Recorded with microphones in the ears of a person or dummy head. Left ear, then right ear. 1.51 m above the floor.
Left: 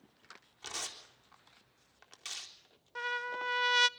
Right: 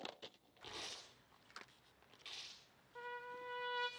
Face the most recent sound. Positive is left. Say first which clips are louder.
# left 13 dB
turn(degrees=70)  # may be behind; listen again after turning